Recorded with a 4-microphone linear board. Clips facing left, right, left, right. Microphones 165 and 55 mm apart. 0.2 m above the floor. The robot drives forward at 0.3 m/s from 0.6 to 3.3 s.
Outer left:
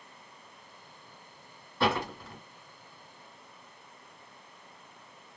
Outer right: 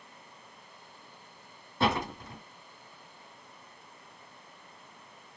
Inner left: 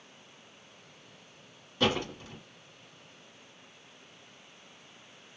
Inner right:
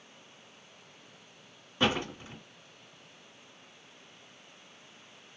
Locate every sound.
1.8 s a door slam: 20° right (ahead or behind), 1.3 m